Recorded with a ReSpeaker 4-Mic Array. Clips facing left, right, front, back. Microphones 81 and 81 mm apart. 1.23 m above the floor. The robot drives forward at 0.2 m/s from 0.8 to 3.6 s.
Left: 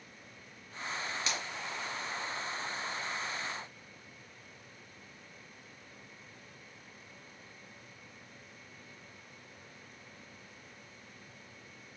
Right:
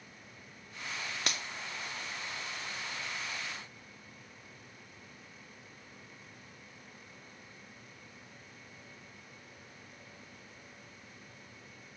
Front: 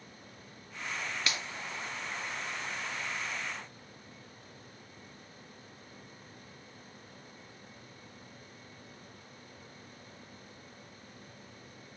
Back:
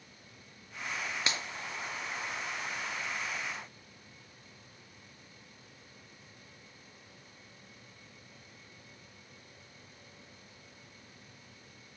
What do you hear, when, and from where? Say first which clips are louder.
1.3 s a finger snap: right 1 dB, back 1 dB; 115° right, 0.6 m; by 1.4 s 120° right, 0.6 m